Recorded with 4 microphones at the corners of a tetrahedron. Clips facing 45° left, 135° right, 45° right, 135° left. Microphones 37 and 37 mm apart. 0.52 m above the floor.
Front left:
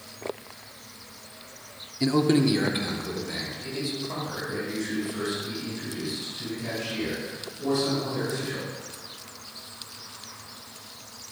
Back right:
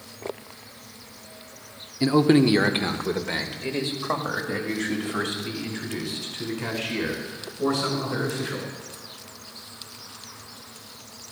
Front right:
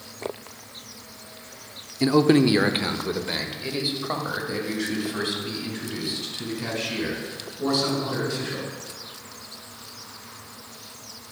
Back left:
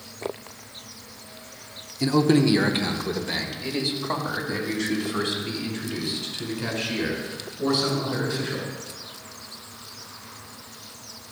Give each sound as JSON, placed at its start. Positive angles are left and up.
{"t": 2.0, "sound": "a man speaking", "azimuth_deg": -70, "distance_m": 0.7}